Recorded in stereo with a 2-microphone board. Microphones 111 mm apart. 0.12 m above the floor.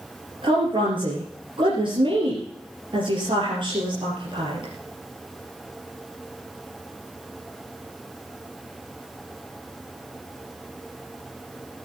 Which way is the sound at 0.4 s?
45° right (ahead or behind).